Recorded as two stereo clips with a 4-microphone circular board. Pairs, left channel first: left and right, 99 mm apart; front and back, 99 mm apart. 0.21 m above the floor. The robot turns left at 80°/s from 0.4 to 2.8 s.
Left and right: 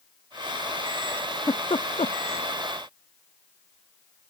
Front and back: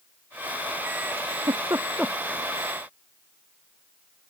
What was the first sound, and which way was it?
A giggle, 165° left.